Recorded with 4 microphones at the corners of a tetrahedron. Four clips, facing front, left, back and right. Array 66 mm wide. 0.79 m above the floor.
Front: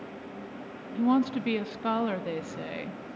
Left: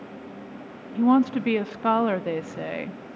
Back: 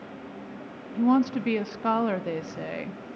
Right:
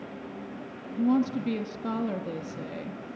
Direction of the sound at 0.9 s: 105° left.